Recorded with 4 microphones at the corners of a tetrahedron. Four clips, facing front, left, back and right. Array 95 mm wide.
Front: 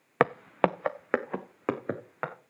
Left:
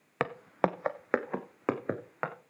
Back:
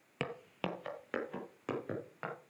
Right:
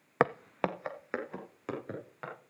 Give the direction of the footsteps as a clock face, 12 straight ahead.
1 o'clock.